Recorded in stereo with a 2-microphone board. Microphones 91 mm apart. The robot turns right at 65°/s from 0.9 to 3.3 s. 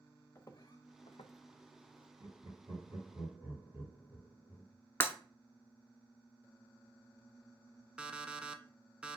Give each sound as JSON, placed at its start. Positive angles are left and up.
{"t": 0.3, "sound": "footsteps", "side_deg": 30, "distance_m": 0.9}
{"t": 2.2, "sound": "laughter", "side_deg": -55, "distance_m": 2.5}
{"t": 5.0, "sound": "breaking glass", "side_deg": 30, "distance_m": 0.7}
{"t": 8.0, "sound": "an alarm clock", "side_deg": -10, "distance_m": 0.5}